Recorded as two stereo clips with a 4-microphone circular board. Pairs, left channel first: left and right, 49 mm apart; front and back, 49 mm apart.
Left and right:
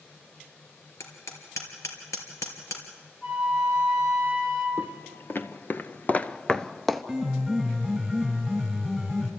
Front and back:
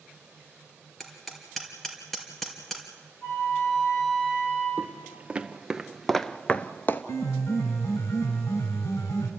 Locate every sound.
1.0 s hammering: 85° left, 3 m
3.2 s a flute: 35° left, 7.5 m
4.8 s footsteps: 125° left, 1.0 m; by 7.0 s straight ahead, 0.6 m
7.1 s a piano: 5° left, 2.5 m